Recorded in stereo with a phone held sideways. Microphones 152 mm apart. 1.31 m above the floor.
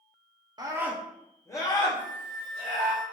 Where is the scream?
30° right (ahead or behind), 0.6 m; by 2.9 s 45° left (ahead or behind), 1.7 m.